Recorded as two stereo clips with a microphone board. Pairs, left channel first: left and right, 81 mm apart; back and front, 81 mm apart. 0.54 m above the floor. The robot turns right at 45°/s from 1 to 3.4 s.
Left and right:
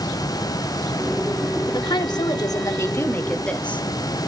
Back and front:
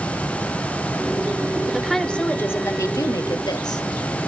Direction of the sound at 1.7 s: 85° left.